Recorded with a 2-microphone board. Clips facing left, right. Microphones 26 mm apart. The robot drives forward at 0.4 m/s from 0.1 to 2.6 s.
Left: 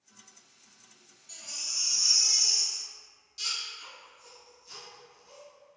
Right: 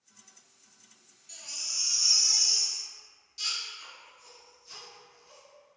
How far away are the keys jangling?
I don't hear keys jangling.